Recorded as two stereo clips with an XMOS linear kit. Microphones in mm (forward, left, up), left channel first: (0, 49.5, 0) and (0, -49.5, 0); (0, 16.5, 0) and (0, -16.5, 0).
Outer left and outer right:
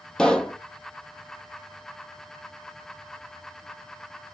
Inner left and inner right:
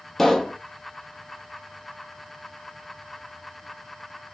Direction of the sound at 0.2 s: 10° left (ahead or behind).